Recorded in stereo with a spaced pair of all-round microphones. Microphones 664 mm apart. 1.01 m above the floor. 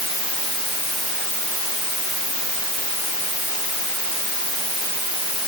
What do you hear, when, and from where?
Only background noise.